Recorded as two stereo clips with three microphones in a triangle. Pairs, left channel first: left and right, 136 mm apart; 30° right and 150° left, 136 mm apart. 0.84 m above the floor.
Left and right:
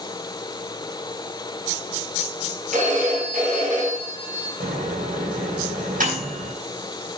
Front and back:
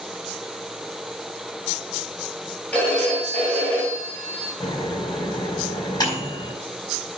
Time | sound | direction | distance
2.7 | a phone ringing | 110° right | 4 m
4.6 | a microwave | 90° right | 5 m